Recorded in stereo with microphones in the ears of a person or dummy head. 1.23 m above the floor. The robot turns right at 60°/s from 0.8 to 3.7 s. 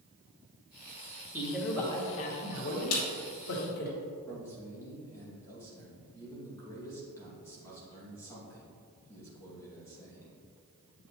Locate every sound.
1.3 s a man speaking: 15° right, 2.5 m; by 3.9 s 125° left, 2.5 m
2.9 s a snare drum: 80° left, 2.5 m; by 3.0 s 85° left, 2.5 m
4.3 s a man speaking: 20° left (ahead or behind), 2.5 m